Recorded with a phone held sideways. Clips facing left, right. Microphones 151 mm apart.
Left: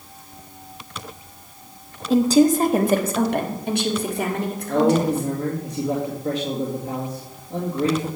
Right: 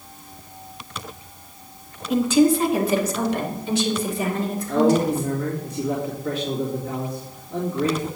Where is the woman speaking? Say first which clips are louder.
Left 2 dB; 35° left (ahead or behind), 1.0 m; by 5.3 s 80° left, 3 m.